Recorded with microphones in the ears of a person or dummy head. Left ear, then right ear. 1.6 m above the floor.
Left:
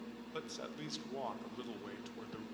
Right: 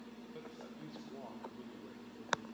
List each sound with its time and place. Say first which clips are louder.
0.3 s a man speaking: left 7 dB; 60° left (ahead or behind), 1.7 m